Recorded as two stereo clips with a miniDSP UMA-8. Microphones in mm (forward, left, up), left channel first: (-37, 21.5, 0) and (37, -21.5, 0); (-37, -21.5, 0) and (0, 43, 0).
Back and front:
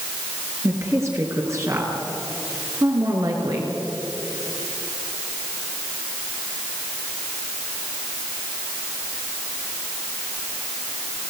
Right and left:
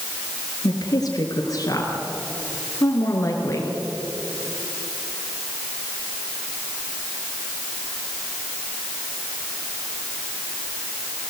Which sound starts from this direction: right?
A woman speaking, at 0.6 s.